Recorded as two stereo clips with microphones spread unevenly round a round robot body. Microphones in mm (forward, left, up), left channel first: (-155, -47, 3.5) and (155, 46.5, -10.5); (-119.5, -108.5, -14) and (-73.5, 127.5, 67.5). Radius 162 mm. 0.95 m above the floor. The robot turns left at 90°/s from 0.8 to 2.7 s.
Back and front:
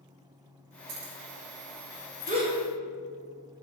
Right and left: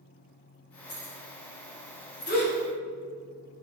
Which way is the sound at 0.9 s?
Straight ahead.